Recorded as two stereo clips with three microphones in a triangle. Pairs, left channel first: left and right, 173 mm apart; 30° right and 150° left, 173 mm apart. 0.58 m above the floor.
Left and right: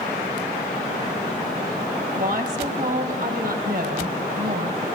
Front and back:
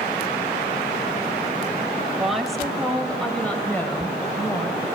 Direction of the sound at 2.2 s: 125° right.